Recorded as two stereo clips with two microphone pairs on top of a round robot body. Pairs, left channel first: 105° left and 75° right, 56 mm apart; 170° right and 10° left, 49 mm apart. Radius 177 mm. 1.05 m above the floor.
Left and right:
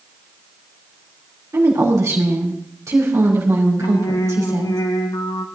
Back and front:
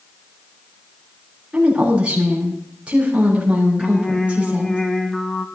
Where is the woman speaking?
55° right, 4 m.